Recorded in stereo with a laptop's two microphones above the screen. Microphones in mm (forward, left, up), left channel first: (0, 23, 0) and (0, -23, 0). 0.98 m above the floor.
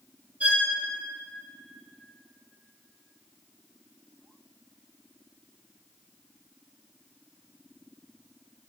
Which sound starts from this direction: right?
A violin, at 0.4 s.